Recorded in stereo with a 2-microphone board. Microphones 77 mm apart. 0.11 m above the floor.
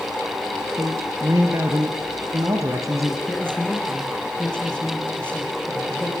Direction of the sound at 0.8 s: 45° right (ahead or behind).